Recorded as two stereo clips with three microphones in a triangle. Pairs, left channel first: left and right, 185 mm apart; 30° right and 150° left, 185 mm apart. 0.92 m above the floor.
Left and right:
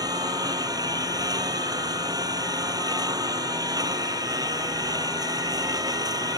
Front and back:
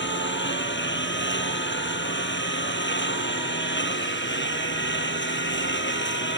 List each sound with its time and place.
0.0 s a lawn mower: 20° right